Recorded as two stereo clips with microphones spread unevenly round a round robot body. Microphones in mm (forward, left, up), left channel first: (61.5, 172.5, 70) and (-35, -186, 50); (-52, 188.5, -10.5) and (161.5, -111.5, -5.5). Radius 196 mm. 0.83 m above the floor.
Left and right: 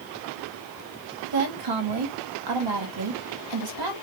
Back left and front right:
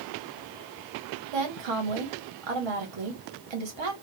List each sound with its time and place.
1.3 s a woman speaking: 80° right, 1.6 m